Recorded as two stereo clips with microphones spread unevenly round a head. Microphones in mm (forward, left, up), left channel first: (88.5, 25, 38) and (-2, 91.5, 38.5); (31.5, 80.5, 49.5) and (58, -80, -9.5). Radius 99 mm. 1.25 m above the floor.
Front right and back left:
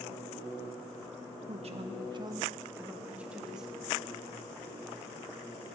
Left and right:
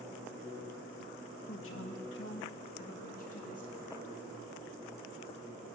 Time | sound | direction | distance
1.5 | a man speaking | 120° left | 1.1 m